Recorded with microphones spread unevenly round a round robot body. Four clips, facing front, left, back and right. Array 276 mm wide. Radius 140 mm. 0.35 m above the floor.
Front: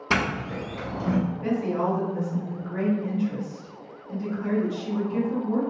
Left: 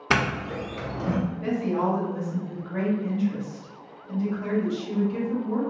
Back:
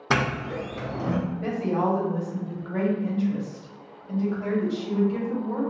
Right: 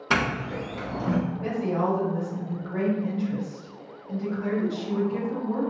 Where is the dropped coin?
I don't hear a dropped coin.